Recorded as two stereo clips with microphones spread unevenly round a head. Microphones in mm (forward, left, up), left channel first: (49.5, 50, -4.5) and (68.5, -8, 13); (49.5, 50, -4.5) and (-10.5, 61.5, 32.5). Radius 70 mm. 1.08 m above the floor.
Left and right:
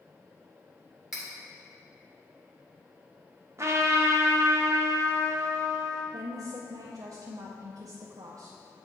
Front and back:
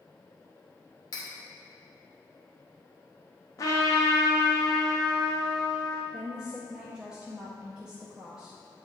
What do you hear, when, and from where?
1.1 s cutlery clinking: 5° left, 1.8 m
3.6 s a trumpet: 30° right, 1.0 m
6.1 s a woman speaking: 80° right, 0.6 m